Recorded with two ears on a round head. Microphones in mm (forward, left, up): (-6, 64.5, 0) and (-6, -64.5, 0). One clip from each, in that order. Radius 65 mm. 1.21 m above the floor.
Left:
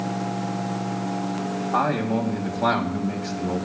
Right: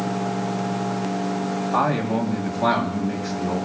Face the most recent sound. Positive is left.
turn(degrees=10)  # may be behind; listen again after turning